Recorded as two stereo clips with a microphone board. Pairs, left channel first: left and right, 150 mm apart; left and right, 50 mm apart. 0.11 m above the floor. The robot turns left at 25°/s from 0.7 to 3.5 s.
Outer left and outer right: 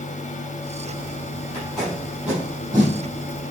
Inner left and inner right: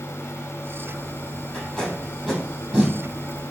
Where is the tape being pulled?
10° left (ahead or behind), 4.5 m; by 3.0 s 25° right (ahead or behind), 4.5 m.